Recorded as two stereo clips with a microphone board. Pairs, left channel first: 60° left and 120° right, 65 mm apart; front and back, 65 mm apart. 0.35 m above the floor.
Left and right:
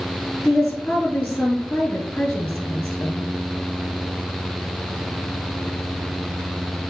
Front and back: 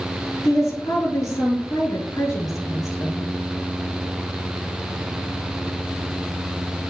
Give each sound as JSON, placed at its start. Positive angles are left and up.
{"t": 0.5, "sound": "a woman speaking", "azimuth_deg": -5, "distance_m": 5.0}